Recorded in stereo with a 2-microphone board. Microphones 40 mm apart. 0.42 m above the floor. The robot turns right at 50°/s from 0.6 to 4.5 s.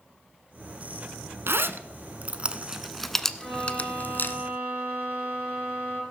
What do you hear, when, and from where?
1.5 s a zipper: 75° right (ahead or behind), 0.9 m; by 4.4 s 65° left (ahead or behind), 0.9 m
3.4 s a violin: straight ahead, 4.5 m; by 6.0 s 55° left, 4.5 m